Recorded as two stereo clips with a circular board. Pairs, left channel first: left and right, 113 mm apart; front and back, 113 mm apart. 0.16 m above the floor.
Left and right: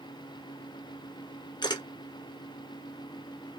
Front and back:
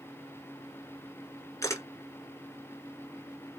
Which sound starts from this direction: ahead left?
A camera shutter, at 1.6 s.